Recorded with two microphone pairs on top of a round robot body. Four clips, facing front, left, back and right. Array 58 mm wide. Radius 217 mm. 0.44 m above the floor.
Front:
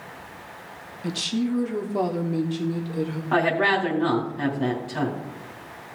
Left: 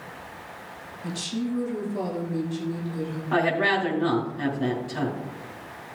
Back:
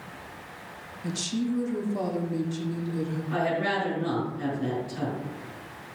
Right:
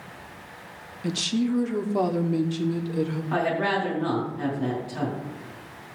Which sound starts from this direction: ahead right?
A woman speaking, at 1.0 s.